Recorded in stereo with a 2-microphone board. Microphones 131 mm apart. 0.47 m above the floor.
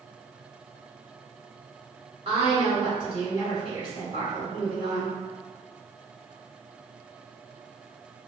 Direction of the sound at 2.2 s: 45° right (ahead or behind).